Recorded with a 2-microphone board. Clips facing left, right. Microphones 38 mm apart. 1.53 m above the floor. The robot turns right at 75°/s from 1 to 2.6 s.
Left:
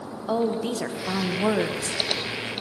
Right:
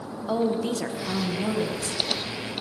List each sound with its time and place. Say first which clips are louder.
0.3 s a woman speaking: even; 10° left, 1.4 m; by 2.0 s 85° left, 1.4 m